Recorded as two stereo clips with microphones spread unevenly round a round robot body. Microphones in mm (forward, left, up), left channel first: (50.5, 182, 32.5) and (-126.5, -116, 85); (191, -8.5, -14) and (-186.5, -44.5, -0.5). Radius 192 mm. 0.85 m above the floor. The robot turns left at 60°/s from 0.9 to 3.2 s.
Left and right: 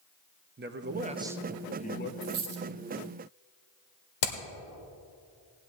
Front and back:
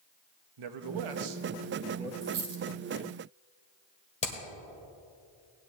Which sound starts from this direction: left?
Hammering, at 4.2 s.